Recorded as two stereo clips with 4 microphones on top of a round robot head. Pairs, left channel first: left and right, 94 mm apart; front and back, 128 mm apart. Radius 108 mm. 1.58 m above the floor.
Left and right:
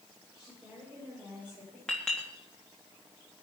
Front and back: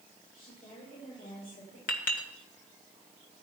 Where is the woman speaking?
5° right, 8 m; by 1.8 s 10° right, 6 m.